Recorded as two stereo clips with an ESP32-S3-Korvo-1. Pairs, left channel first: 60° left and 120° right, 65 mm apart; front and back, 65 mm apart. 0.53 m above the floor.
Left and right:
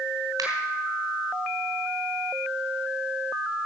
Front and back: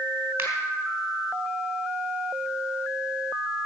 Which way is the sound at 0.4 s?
120° right.